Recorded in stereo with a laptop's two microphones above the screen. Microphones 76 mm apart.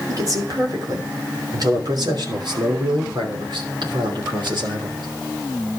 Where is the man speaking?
45° right (ahead or behind), 3 m; by 5.1 s 80° right, 3.5 m.